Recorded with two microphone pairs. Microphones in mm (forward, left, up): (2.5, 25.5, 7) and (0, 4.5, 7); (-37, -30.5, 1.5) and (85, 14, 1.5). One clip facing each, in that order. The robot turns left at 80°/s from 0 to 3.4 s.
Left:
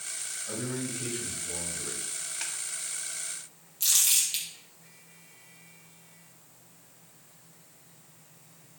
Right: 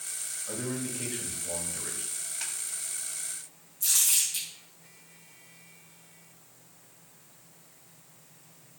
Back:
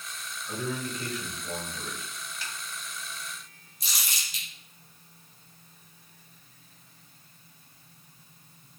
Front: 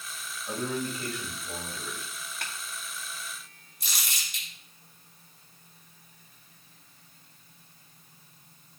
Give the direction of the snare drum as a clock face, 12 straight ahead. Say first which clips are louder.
Left 1 dB, front 2 dB; 12 o'clock.